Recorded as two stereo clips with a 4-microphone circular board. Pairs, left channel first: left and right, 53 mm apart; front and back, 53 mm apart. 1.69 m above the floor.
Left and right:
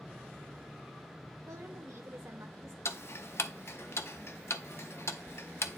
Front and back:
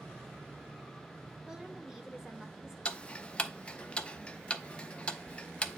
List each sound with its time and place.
1.5 s a woman speaking: 105° right, 1.6 m
2.9 s ticking: 65° left, 0.6 m